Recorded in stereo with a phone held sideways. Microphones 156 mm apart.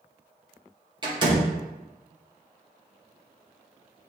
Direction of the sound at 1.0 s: 30° right (ahead or behind).